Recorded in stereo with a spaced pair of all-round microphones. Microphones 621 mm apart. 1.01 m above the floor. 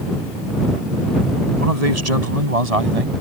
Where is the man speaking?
85° right; by 3.1 s 65° right (ahead or behind).